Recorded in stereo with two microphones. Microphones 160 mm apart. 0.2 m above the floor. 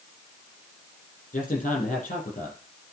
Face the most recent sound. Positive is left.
turn(degrees=50)  # may be behind; listen again after turning